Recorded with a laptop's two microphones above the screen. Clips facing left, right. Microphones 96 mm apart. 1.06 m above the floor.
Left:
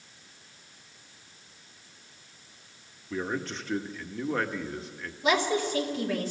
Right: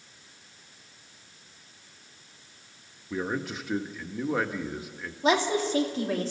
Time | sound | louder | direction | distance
3.1 | a man speaking | right 1 dB | 10° right (ahead or behind) | 1.4 m
5.2 | a woman speaking | right 2 dB | 35° right (ahead or behind) | 2.5 m